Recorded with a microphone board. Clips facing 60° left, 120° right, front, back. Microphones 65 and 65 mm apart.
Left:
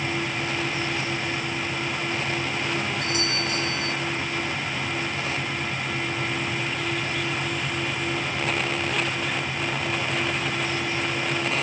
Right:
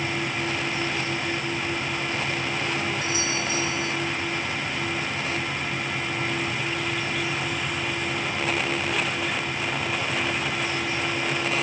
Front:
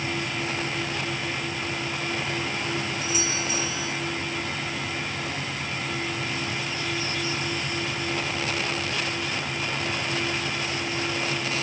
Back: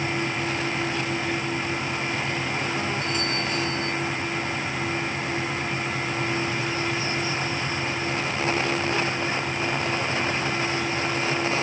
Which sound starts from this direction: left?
A doorbell, at 3.0 s.